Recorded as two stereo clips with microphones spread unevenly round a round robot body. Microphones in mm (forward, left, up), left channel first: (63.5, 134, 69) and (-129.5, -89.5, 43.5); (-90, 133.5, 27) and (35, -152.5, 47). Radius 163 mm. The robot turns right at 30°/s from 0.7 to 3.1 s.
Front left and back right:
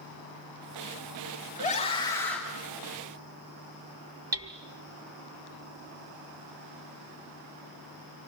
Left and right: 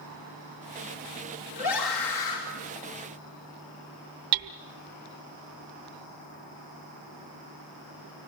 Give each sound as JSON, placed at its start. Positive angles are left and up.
{"t": 1.6, "sound": "a scream", "azimuth_deg": 115, "distance_m": 3.5}
{"t": 4.3, "sound": "hammering", "azimuth_deg": -50, "distance_m": 0.9}